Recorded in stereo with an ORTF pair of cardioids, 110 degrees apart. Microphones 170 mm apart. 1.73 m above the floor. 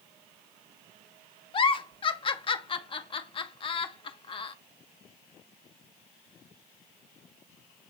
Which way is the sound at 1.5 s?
30° left.